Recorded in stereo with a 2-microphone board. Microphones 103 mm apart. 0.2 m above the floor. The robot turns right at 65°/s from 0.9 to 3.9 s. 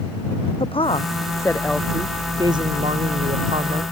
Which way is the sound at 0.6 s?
120° left.